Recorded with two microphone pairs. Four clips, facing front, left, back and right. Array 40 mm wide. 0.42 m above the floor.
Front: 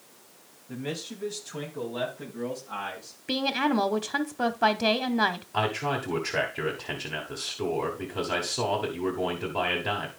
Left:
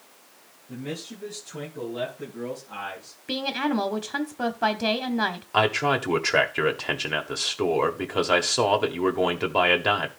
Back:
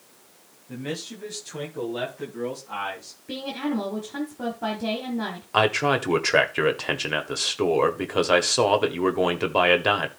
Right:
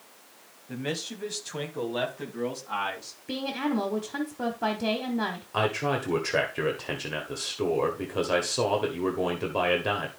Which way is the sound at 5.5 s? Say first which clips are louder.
Left 5 dB, back 7 dB; 150° left.